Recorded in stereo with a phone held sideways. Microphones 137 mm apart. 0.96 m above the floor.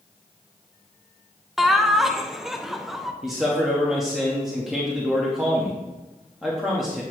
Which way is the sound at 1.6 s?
Centre (ahead or behind).